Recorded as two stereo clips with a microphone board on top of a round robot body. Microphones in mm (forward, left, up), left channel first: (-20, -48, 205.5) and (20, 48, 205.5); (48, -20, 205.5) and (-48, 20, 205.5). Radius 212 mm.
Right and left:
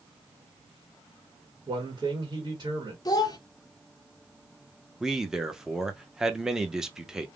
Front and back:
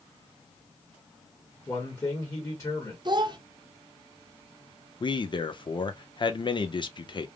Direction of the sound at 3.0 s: 160° right.